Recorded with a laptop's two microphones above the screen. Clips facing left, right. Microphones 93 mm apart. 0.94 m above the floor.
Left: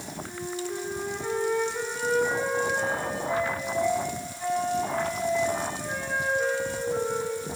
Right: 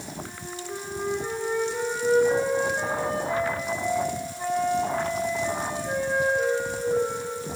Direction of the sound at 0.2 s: 25° right (ahead or behind).